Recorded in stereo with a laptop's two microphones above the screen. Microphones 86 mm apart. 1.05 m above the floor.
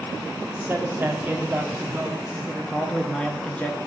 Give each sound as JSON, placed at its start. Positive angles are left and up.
{"t": 0.5, "sound": "a man speaking", "side_deg": -20, "distance_m": 2.5}